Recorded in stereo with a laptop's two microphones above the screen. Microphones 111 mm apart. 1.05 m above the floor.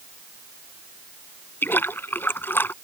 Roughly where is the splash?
Centre.